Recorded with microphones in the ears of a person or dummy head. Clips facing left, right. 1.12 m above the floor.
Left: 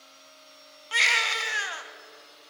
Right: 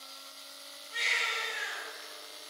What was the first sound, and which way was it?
A baby crying, 80° left.